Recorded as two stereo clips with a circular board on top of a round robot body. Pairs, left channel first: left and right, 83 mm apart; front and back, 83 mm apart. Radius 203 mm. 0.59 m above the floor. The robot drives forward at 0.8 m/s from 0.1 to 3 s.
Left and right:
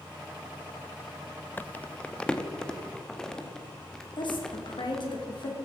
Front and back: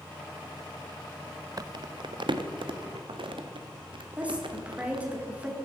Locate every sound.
1.6 s crumpling: 155° left, 0.6 m; by 5.1 s 175° left, 1.6 m
4.2 s a woman speaking: 110° left, 3 m